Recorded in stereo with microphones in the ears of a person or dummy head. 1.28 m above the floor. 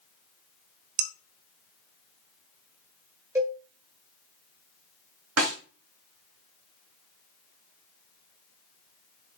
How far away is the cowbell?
About 2.5 m.